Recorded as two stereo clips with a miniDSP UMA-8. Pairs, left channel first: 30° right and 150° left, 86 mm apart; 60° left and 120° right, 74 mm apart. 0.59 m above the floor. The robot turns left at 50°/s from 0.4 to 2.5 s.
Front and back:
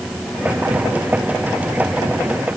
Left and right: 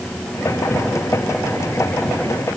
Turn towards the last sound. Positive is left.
No sound to turn to.